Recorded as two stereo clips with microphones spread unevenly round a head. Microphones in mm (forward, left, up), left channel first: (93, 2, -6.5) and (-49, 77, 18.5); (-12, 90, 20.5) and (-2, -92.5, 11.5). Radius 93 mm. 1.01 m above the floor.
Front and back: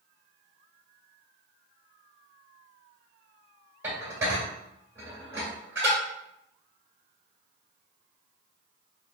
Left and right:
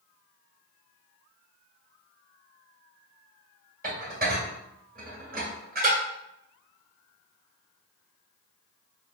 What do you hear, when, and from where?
3.8 s dishes clattering: 130° right, 1.7 m